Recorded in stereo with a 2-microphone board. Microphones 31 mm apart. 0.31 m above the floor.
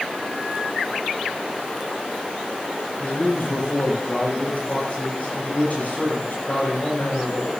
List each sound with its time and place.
3.0 s a man speaking: 60° left (ahead or behind), 8 m